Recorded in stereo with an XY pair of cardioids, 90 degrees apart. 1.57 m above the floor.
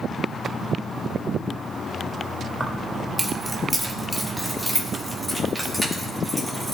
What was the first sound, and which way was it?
Keys jangling, 10° right.